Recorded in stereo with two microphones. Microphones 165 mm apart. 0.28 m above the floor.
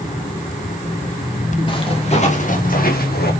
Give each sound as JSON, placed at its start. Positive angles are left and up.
{"t": 1.7, "sound": "footsteps", "side_deg": 30, "distance_m": 3.5}